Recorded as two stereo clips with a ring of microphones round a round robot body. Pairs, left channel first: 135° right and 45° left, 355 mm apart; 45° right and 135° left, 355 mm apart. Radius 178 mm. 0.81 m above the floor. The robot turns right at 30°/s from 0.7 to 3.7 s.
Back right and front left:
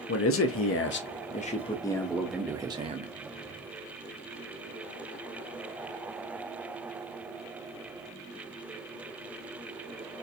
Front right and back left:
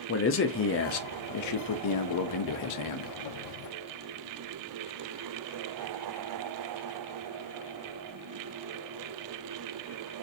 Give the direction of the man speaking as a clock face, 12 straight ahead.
3 o'clock.